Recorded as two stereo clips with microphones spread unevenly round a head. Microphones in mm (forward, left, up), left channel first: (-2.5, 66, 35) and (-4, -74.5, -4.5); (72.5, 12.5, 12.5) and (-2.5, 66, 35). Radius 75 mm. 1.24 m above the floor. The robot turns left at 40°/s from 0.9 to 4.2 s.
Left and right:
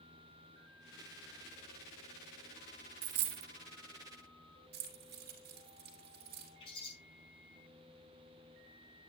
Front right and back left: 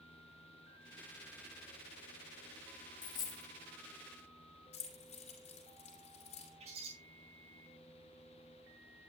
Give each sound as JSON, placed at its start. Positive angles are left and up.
{"t": 3.0, "sound": "a dropped coin", "azimuth_deg": -100, "distance_m": 0.7}
{"t": 4.7, "sound": "keys jangling", "azimuth_deg": -70, "distance_m": 2.5}
{"t": 6.6, "sound": "a bird", "azimuth_deg": 145, "distance_m": 4.5}